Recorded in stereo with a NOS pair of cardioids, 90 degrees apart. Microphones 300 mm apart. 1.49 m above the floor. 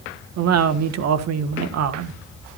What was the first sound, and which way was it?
A woman speaking, 60° right.